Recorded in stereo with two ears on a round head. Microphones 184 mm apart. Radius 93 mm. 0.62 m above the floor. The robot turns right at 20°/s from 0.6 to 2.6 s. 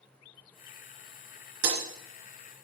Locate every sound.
1.6 s breaking glass: 75° right (ahead or behind), 2.5 m; by 1.9 s 80° right, 2.5 m